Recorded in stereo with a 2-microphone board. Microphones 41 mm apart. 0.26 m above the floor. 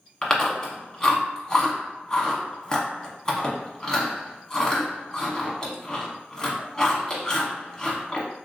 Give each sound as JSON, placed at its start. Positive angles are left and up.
{"t": 0.2, "sound": "chewing", "side_deg": 20, "distance_m": 0.8}